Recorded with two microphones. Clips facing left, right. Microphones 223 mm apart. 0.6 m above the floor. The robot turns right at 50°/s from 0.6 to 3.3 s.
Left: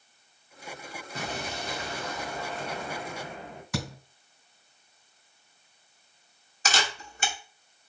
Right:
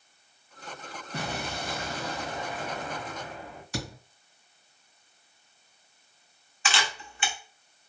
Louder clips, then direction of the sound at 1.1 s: Right 1 dB; 85° right.